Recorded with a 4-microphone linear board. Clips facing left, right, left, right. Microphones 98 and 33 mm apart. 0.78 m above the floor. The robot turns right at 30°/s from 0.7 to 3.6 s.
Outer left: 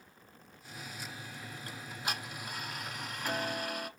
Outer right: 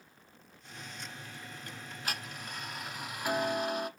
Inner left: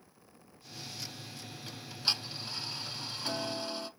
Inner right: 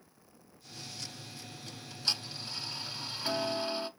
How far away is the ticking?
About 1.2 m.